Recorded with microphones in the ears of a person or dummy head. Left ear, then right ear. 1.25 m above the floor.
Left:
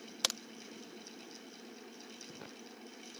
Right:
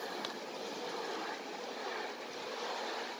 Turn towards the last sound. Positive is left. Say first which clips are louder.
# left 7 dB
turn(degrees=85)